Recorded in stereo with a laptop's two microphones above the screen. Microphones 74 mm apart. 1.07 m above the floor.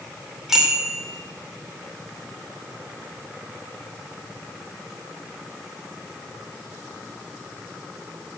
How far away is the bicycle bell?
About 2 m.